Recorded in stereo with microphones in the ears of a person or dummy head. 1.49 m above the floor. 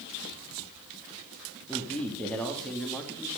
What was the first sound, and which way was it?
A man speaking, 10° left (ahead or behind).